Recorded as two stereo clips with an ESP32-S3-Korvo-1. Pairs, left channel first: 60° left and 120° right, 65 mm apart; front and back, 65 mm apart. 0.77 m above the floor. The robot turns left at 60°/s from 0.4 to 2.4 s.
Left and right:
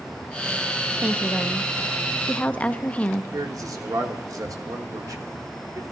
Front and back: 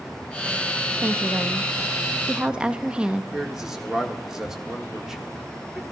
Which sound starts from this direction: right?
A man speaking, at 3.3 s.